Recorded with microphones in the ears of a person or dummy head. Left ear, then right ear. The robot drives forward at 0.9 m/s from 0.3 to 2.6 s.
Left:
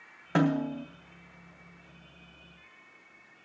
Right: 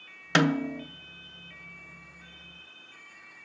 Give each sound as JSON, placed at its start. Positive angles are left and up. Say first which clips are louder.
{"t": 0.3, "sound": "a snare drum", "louder": "right 3 dB", "side_deg": -45, "distance_m": 0.6}